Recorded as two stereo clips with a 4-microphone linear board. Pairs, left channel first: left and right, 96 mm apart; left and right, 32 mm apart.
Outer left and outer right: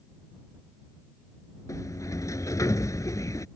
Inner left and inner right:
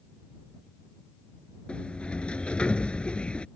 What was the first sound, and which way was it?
A sliding door, 35° left (ahead or behind).